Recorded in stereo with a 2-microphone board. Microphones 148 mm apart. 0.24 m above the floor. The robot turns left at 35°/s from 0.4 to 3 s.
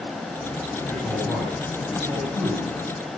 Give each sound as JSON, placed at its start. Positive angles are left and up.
{"t": 0.9, "sound": "a man speaking", "side_deg": 10, "distance_m": 6.0}